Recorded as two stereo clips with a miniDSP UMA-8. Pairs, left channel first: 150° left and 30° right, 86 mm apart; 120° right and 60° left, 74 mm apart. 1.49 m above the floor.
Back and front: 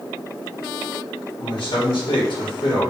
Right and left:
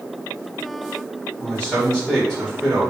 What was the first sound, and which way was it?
A man speaking, 160° left.